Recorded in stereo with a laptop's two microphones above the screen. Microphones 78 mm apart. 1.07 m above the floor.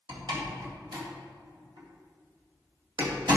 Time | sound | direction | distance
0.1 | a door slam | 80° right | 2 m